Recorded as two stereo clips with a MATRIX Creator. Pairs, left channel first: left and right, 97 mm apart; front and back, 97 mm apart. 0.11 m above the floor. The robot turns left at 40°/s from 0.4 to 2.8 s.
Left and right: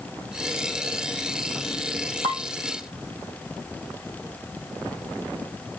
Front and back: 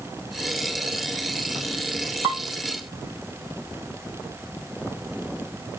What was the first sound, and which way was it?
Dishes clattering, 115° left.